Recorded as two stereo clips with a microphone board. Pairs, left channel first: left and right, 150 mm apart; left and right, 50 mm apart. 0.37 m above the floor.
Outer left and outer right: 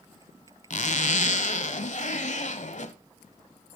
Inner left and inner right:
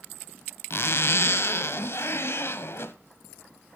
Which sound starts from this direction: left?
A zipper, at 0.7 s.